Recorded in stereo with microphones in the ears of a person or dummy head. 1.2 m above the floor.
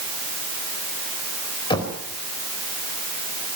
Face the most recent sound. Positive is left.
turn(degrees=25)  # may be behind; listen again after turning